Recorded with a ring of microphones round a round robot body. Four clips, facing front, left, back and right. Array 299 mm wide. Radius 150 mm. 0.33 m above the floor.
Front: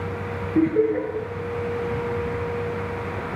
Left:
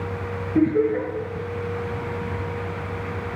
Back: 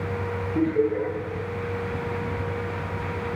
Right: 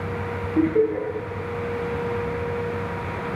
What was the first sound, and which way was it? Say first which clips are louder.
Laughter: left 1 dB, front 3 dB; 75° left.